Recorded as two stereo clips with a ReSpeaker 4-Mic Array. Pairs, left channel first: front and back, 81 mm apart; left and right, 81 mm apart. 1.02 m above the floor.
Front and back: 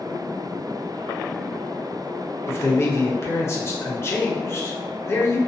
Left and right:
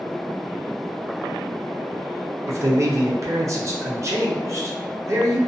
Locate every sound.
2.5 s a man speaking: 50° right, 0.6 m